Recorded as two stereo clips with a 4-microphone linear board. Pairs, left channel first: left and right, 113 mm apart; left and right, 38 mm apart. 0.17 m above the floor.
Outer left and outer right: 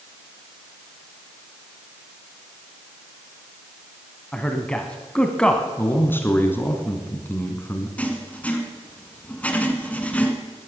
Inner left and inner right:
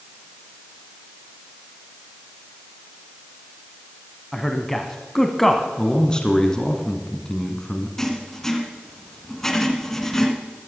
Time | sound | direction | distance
4.3 | a man speaking | 10° left (ahead or behind) | 1.0 m
5.8 | a man speaking | 20° left (ahead or behind) | 1.5 m
8.0 | writing | 10° left (ahead or behind) | 1.6 m